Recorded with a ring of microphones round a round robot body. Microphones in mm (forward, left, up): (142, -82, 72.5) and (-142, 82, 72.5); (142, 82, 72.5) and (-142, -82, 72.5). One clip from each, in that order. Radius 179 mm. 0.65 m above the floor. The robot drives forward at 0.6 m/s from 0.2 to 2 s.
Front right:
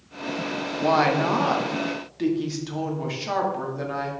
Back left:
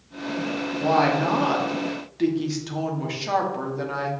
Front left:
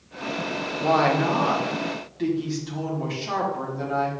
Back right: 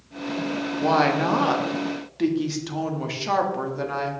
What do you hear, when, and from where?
0.8 s a woman speaking: 85° right, 1.2 m; by 4.1 s 125° right, 1.4 m